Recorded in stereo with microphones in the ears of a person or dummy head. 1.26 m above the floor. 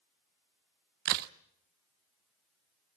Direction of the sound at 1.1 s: 55° right (ahead or behind).